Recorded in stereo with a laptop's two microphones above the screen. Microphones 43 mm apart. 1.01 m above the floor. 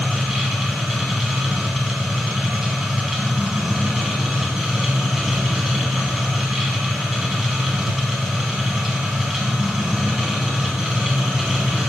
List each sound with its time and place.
0.0 s a machine running: 5° right (ahead or behind), 3.5 m